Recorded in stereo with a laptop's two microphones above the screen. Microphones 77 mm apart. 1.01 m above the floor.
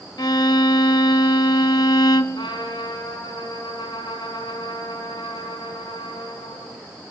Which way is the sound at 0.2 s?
60° left (ahead or behind).